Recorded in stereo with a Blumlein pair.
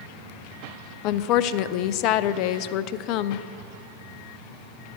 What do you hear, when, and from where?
1.0 s a woman speaking: 40° left, 0.5 m